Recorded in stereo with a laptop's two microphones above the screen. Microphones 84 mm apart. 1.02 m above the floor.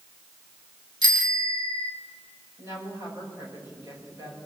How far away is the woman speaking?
About 6 m.